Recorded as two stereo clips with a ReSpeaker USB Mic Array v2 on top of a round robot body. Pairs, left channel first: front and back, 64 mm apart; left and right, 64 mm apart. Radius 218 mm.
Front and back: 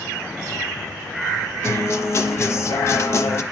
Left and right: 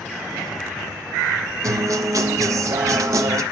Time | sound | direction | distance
1.6 | a guitar | 50° right | 1.2 m